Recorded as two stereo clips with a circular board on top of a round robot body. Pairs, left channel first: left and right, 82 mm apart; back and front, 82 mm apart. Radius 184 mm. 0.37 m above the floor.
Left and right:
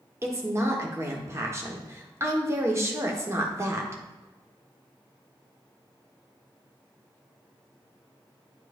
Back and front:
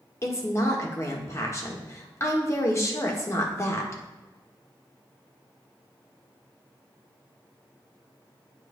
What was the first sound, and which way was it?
A woman speaking, 135° right.